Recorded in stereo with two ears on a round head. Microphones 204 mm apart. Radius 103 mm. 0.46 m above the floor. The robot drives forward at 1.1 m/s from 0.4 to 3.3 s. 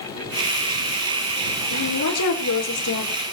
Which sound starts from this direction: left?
A woman speaking, at 1.7 s.